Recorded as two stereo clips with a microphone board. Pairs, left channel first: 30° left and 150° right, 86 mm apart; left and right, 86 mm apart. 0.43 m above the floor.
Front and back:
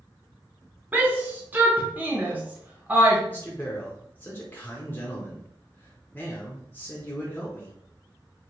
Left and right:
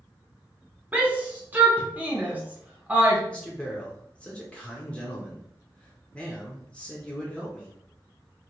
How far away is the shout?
About 0.8 m.